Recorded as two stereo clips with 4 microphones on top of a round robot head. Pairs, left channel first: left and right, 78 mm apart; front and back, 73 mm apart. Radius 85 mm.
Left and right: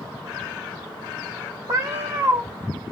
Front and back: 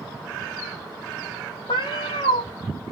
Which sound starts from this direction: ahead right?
A cat meowing, at 1.7 s.